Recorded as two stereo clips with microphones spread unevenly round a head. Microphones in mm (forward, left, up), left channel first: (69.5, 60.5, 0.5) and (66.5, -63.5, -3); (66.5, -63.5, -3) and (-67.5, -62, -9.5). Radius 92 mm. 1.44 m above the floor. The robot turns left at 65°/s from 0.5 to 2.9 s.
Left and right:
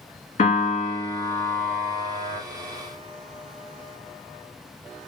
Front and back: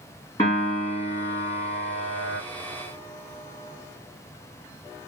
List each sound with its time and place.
0.4 s a piano: 70° left, 3 m; by 2.4 s 50° right, 3 m